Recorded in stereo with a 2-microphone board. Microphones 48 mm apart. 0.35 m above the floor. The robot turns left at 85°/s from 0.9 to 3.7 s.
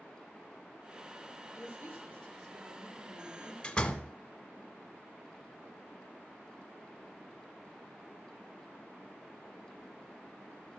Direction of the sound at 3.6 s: 20° left (ahead or behind).